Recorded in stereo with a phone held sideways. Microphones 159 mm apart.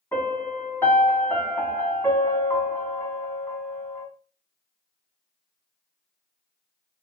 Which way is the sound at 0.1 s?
15° left (ahead or behind).